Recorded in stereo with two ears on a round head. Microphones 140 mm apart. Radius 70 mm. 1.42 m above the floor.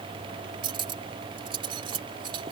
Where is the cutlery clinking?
30° right (ahead or behind).